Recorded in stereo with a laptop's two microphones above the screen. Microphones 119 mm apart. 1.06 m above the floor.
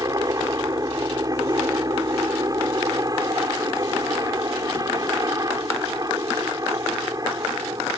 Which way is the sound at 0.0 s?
30° right (ahead or behind).